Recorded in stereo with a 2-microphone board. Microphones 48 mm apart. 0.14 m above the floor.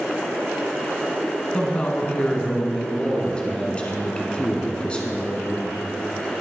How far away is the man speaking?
About 1.2 m.